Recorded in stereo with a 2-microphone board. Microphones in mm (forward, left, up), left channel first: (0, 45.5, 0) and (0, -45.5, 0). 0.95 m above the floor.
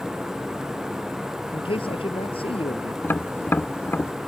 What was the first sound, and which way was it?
A man speaking, 85° left.